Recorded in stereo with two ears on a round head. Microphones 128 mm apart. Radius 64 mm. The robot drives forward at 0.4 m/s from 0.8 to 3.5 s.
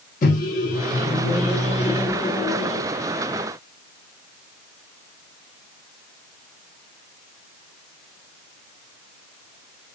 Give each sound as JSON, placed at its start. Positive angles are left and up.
{"t": 0.2, "sound": "a microwave", "side_deg": 60, "distance_m": 0.9}